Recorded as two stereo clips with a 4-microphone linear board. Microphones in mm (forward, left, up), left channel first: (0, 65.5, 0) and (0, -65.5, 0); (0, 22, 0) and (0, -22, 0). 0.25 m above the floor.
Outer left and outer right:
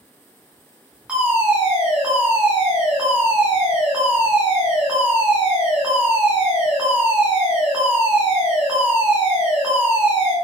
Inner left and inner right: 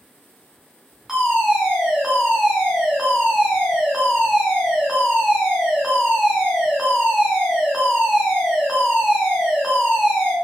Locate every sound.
1.1 s a fire alarm: 10° right (ahead or behind), 5 m